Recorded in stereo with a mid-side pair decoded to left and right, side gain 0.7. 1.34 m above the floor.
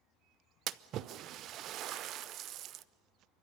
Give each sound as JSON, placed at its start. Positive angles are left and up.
{"t": 0.7, "sound": "a splash", "azimuth_deg": -50, "distance_m": 0.5}